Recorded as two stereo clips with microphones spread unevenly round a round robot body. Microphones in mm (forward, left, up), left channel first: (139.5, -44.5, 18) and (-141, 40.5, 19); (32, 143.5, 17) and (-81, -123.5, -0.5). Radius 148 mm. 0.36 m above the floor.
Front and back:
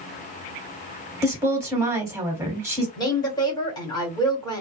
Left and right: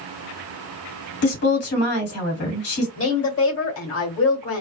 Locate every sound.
1.2 s a woman speaking: 85° left, 1.7 m
3.0 s a woman speaking: 55° left, 1.5 m